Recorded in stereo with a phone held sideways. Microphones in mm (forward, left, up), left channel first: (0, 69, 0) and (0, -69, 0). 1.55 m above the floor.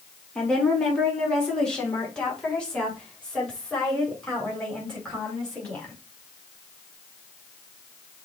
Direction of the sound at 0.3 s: 5° left (ahead or behind).